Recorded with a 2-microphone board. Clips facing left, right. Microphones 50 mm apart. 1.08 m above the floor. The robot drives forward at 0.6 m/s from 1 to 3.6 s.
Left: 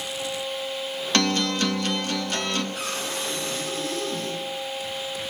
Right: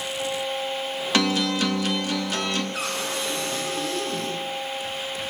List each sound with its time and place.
1.1 s a guitar: 5° right (ahead or behind), 0.6 m; by 2.6 s centre (ahead or behind), 1.5 m
2.7 s a cupboard door: 90° right, 9 m; by 4.4 s 85° right, 9 m